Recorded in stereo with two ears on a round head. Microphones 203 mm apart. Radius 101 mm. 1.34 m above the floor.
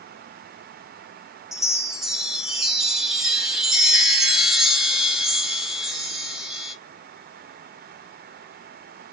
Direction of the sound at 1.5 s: Centre (ahead or behind).